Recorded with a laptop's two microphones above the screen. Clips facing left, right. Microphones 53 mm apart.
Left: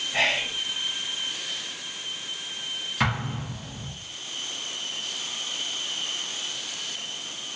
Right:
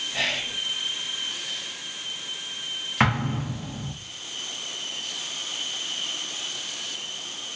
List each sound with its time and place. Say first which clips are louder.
0.1 s whispering: left 4 dB; 30° left (ahead or behind), 0.6 m
3.0 s an explosion: right 4 dB; 35° right (ahead or behind), 0.7 m